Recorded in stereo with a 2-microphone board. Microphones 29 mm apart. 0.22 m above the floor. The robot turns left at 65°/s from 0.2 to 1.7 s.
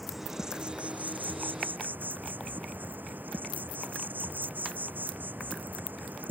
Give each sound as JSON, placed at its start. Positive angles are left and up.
{"t": 0.0, "sound": "an insect", "azimuth_deg": -5}